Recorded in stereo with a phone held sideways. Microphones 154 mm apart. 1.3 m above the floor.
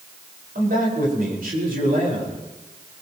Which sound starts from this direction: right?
A man speaking, at 0.6 s.